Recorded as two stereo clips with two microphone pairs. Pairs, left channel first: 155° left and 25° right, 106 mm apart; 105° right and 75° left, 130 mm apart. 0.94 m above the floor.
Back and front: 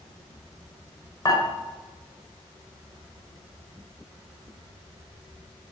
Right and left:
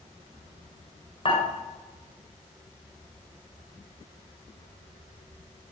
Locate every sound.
1.2 s dishes clattering: 150° right, 2.5 m